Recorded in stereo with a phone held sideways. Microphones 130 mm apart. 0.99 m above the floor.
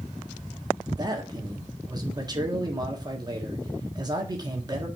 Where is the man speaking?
30° right (ahead or behind), 1.6 m.